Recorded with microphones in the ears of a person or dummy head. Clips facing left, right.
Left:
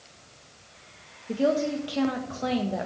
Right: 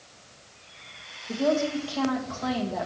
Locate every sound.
1.3 s a woman speaking: 25° left (ahead or behind), 1.5 m